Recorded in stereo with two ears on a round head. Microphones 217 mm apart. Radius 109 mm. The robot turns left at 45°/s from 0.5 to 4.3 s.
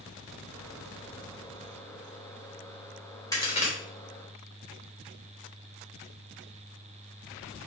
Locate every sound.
3.3 s a crack: 15° left (ahead or behind), 3 m; by 3.7 s 35° left (ahead or behind), 3 m